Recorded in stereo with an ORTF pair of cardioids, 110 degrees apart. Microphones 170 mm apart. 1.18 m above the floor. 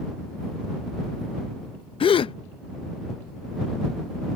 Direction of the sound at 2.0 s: 35° left.